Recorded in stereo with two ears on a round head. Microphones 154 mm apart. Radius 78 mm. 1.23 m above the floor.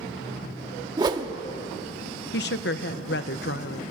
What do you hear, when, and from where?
1.0 s a whoosh: 25° right (ahead or behind), 1.1 m
2.3 s a woman speaking: 70° left (ahead or behind), 1.0 m